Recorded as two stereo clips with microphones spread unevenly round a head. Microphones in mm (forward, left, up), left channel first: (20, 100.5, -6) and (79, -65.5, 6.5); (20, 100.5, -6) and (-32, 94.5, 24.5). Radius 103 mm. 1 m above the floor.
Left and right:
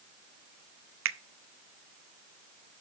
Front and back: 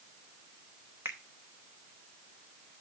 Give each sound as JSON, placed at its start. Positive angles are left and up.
{"t": 1.1, "sound": "a finger snap", "azimuth_deg": -100, "distance_m": 0.6}